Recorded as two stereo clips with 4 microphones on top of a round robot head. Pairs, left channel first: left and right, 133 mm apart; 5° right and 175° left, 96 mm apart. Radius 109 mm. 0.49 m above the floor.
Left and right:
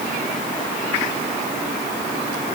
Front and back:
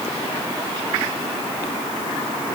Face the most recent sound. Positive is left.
No sound to turn to.